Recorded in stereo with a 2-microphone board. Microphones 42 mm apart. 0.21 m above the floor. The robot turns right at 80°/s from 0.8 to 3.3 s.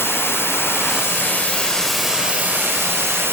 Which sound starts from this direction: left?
Running water, at 0.0 s.